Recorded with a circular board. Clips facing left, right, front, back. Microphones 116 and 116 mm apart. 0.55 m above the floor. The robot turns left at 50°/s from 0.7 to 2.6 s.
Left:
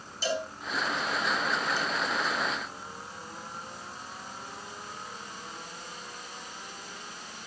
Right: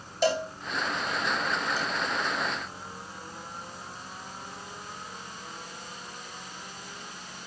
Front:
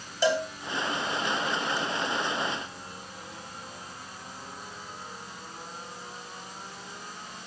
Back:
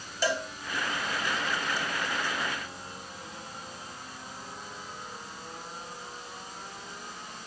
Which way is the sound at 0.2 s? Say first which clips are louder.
Right 5 dB, front 5 dB; 70° right.